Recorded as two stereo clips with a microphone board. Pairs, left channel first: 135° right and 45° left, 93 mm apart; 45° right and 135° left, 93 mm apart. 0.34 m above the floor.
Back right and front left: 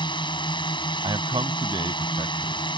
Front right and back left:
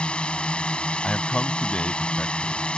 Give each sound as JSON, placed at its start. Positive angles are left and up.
{"t": 0.0, "sound": "a drone", "azimuth_deg": -120}
{"t": 1.0, "sound": "a man speaking", "azimuth_deg": 30}